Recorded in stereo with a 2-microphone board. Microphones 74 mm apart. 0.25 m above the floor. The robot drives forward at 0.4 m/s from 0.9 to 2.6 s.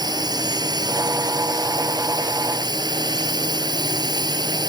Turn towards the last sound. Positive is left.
turn(degrees=-65)  # may be behind; listen again after turning